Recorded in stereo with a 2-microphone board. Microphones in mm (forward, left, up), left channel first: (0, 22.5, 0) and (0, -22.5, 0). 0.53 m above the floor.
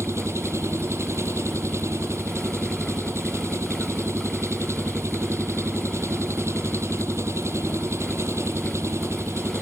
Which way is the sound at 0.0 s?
80° right.